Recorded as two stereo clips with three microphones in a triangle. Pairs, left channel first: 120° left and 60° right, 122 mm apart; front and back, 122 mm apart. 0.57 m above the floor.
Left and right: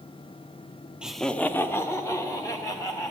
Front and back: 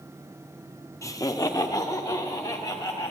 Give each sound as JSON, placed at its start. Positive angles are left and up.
{"t": 1.0, "sound": "laughter", "azimuth_deg": 10, "distance_m": 0.6}